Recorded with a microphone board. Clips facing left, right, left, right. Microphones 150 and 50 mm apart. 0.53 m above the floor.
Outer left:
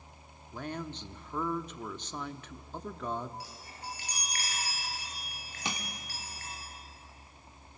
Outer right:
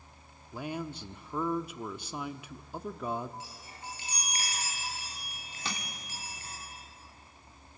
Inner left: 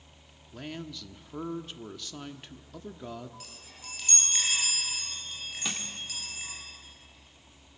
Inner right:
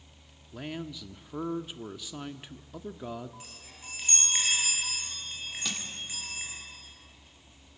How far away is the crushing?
About 1.6 m.